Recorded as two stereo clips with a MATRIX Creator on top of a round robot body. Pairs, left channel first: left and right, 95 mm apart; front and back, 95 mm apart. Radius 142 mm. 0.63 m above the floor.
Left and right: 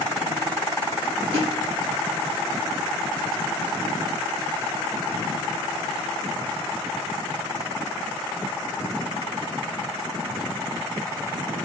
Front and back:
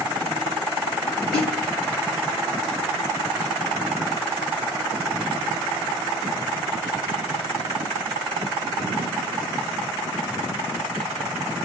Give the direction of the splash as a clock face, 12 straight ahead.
4 o'clock.